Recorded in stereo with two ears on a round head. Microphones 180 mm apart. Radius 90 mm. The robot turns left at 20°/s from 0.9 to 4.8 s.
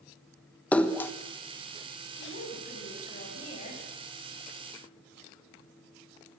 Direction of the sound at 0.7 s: 10° left (ahead or behind).